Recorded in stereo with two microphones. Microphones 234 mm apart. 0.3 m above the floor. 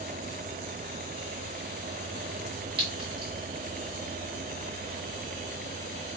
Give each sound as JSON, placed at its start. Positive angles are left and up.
{"t": 2.8, "sound": "a clink", "side_deg": -20, "distance_m": 1.1}